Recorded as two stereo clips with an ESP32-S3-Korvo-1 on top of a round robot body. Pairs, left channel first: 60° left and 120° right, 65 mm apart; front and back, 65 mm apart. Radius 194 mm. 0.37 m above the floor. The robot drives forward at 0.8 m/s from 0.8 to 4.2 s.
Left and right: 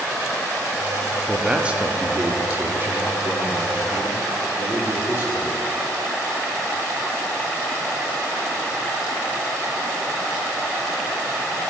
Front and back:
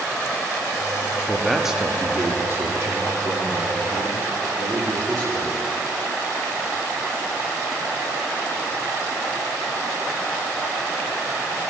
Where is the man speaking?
50° right, 1.2 m; by 5.6 s 170° right, 2.5 m.